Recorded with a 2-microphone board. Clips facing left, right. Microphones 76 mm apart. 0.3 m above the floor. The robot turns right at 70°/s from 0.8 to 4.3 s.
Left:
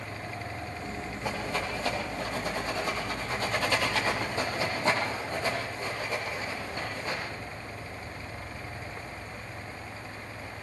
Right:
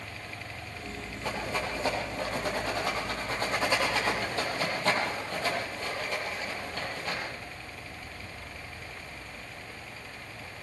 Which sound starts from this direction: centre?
A rattle, at 1.2 s.